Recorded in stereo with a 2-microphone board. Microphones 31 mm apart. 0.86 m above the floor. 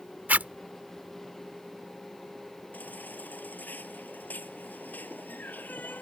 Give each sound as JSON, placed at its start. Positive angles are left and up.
{"t": 0.3, "sound": "a zipper", "side_deg": -65}
{"t": 2.7, "sound": "a baby crying", "side_deg": 85}